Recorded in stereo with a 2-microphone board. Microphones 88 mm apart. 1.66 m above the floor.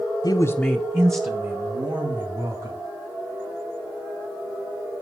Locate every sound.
0.2 s a man speaking: 50° left (ahead or behind), 0.8 m; by 2.8 s 55° right (ahead or behind), 3.5 m